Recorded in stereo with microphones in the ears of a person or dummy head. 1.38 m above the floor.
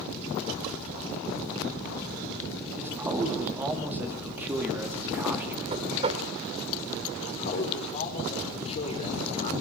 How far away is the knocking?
About 2.5 m.